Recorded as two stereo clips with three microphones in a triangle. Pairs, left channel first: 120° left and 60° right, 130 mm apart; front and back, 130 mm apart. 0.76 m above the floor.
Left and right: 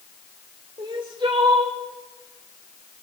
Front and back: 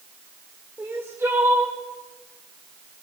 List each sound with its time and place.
0.8 s crying: 110° right, 3 m